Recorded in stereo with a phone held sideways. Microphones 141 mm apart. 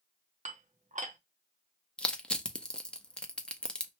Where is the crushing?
5° left (ahead or behind), 0.5 m.